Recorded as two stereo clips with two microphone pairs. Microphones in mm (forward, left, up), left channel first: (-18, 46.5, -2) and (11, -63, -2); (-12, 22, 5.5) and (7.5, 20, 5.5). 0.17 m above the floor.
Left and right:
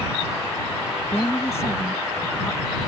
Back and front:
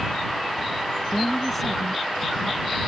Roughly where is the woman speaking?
Left.